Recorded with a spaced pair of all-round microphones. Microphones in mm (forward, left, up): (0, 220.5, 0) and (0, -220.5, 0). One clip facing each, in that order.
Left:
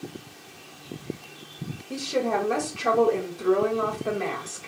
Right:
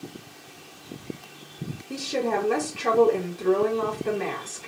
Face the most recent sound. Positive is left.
turn(degrees=-5)  # may be behind; listen again after turning